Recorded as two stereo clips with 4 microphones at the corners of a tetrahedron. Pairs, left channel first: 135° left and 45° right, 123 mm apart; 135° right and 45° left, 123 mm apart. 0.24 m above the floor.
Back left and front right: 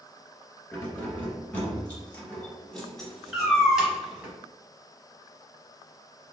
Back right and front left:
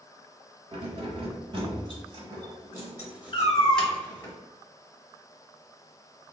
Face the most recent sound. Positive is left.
turn(degrees=-135)